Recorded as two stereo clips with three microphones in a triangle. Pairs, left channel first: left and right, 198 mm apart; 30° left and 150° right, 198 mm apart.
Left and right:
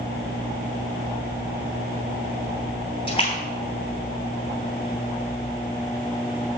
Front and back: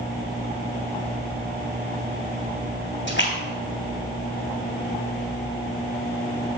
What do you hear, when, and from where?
3.1 s a splash: 30° left, 3 m